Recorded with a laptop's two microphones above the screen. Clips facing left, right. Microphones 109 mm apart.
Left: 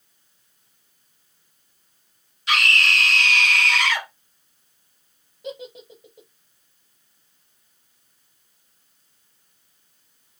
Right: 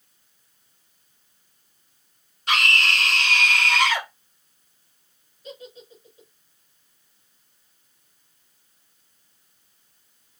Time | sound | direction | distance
2.5 | a scream | 45° right (ahead or behind) | 2 m
5.4 | a giggle | 80° left | 1.0 m